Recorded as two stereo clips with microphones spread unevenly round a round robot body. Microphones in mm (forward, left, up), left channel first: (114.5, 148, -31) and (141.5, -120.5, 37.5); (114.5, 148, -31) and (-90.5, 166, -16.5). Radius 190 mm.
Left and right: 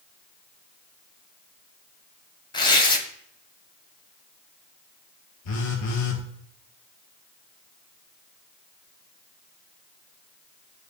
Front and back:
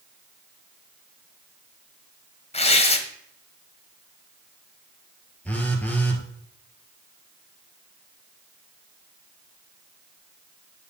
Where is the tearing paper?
40° left, 1.2 m.